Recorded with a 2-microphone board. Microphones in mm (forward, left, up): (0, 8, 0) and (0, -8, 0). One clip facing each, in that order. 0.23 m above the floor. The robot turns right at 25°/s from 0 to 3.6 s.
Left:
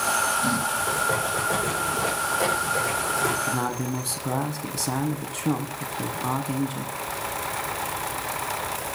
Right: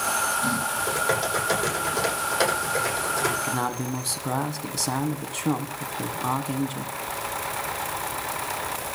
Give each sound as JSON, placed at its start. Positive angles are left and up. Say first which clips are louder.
{"t": 0.8, "sound": "typing on a keyboard", "louder": "even", "azimuth_deg": -90, "distance_m": 10.0}
{"t": 3.4, "sound": "a man speaking", "louder": "even", "side_deg": -15, "distance_m": 1.5}